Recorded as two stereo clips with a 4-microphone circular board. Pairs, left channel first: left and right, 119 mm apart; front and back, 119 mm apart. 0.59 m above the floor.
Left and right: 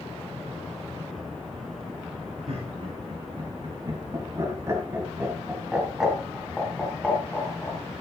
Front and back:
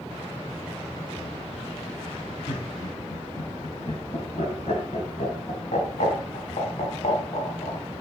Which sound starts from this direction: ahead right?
Laughter, at 2.5 s.